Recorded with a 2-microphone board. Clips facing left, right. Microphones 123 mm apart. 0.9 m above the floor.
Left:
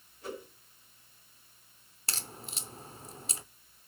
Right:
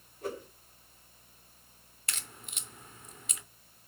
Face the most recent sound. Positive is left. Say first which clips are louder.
# left 3 dB
turn(degrees=30)  # may be behind; listen again after turning